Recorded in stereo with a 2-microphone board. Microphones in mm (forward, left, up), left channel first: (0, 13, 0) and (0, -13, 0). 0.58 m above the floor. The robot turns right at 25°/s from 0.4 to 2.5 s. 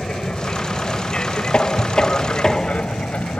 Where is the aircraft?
35° left (ahead or behind); by 3.4 s 55° left (ahead or behind).